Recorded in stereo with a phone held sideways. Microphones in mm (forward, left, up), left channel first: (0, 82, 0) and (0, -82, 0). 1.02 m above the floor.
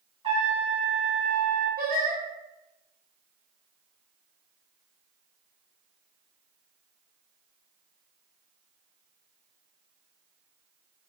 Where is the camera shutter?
I don't hear a camera shutter.